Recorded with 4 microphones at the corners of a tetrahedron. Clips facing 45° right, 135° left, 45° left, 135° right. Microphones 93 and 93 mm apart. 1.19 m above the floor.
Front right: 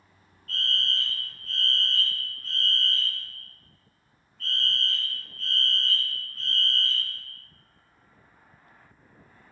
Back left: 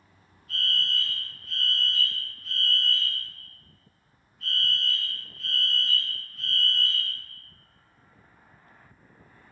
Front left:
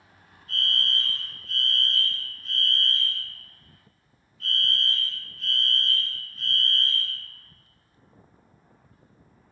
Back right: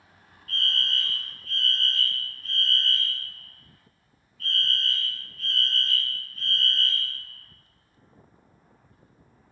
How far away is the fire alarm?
About 1.0 m.